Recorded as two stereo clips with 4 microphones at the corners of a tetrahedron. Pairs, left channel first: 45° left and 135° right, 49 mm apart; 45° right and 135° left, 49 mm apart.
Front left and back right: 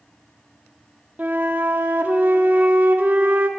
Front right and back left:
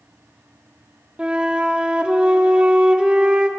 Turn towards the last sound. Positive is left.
turn(degrees=-170)